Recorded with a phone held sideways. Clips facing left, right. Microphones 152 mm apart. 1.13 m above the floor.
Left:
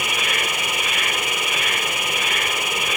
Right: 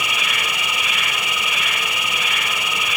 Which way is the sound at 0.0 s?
50° left (ahead or behind).